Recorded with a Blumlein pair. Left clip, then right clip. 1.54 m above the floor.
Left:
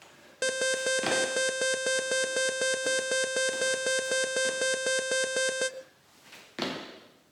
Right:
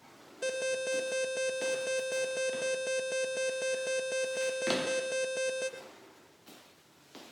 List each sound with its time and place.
0.4 s an alarm: 35° left, 1.6 m